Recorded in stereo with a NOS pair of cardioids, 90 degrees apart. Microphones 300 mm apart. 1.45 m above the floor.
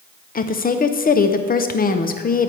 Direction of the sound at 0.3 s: 30° left.